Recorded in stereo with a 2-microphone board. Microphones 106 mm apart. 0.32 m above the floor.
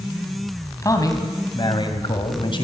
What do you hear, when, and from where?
0.8 s a man speaking: 30° left (ahead or behind), 3 m; by 2.6 s 50° left (ahead or behind), 2.5 m